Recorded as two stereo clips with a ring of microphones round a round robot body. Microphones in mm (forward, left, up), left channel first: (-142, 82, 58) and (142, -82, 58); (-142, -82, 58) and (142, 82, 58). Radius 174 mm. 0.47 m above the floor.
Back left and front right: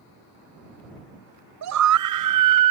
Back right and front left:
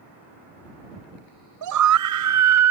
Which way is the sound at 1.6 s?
5° left.